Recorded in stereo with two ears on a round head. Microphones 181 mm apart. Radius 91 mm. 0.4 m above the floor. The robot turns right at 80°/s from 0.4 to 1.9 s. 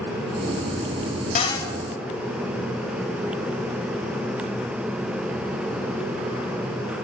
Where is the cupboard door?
35° left (ahead or behind), 0.8 m; by 1.7 s 10° left (ahead or behind), 0.8 m.